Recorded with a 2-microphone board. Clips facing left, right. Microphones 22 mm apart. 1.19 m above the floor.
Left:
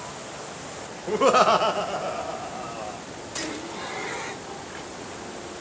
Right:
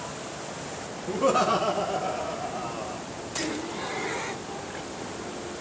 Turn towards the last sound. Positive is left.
turn(degrees=5)  # may be behind; listen again after turning